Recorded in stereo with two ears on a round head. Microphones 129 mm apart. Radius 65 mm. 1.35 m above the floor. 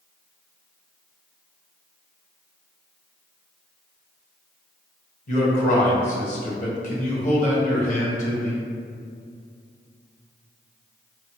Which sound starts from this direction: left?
A man speaking, at 5.3 s.